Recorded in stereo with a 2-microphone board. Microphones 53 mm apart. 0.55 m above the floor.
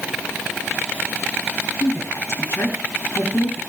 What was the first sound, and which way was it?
A woman speaking, 50° left (ahead or behind).